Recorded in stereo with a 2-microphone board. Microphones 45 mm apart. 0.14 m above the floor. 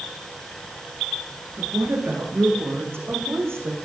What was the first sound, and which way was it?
A woman speaking, 80° right.